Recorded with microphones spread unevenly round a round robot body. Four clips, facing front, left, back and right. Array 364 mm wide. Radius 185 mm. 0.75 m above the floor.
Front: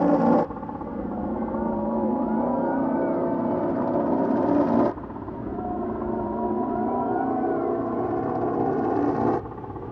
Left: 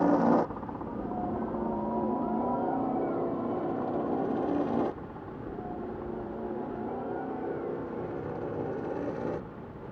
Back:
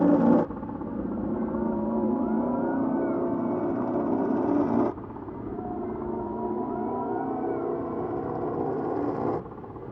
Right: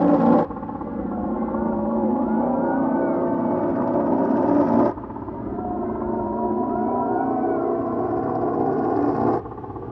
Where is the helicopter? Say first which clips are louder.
Right 8 dB, front 1 dB; 100° right; by 9.9 s 65° right.